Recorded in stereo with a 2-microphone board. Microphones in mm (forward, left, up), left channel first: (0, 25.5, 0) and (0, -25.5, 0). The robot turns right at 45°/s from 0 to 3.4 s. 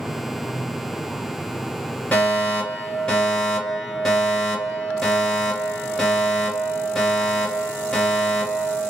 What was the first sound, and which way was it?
A fire alarm, 25° left (ahead or behind).